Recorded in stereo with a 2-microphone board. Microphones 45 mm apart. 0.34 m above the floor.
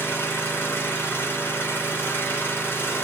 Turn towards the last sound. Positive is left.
turn(degrees=50)  # may be behind; listen again after turning